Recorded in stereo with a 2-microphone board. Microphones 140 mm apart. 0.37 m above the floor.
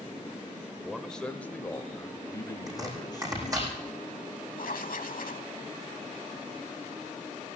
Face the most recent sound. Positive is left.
turn(degrees=85)